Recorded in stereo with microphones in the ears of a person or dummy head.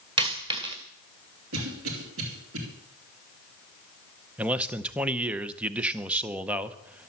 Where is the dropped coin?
25° right (ahead or behind), 1.5 m.